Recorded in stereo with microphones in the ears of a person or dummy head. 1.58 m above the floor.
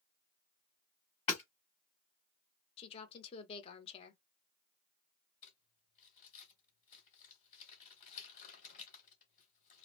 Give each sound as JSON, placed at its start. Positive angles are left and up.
{"t": 1.3, "sound": "hammering", "side_deg": 30, "distance_m": 1.5}
{"t": 2.8, "sound": "a woman speaking", "side_deg": 35, "distance_m": 0.8}
{"t": 5.4, "sound": "crumpling", "side_deg": 45, "distance_m": 1.6}